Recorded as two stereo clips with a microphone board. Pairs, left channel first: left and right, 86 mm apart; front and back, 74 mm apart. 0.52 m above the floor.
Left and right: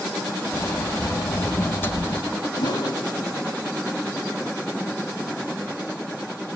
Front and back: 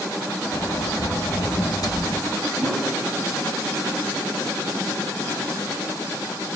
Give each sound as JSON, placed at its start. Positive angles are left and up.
{"t": 0.5, "sound": "a sliding door", "azimuth_deg": 30, "distance_m": 0.9}
{"t": 2.6, "sound": "a whoosh", "azimuth_deg": 80, "distance_m": 1.2}